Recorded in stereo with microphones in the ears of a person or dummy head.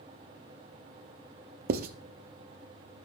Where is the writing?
45° right (ahead or behind), 0.6 m.